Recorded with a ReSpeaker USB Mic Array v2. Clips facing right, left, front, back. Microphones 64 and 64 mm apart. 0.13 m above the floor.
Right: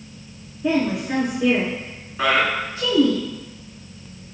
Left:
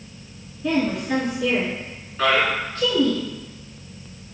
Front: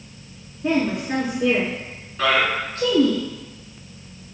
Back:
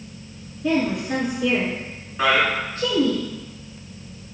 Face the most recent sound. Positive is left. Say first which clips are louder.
# even, back 1 dB
turn(degrees=-150)